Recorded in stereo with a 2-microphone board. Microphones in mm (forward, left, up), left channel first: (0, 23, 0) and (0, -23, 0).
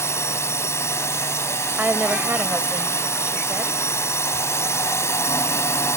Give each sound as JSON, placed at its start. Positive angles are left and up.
{"t": 0.0, "sound": "a drone", "side_deg": 80}
{"t": 1.8, "sound": "a woman speaking", "side_deg": -35}